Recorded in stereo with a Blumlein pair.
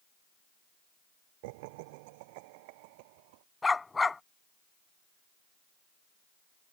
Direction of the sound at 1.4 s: 50° right.